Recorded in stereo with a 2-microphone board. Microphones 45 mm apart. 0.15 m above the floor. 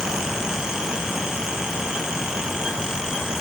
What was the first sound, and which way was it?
Only background noise.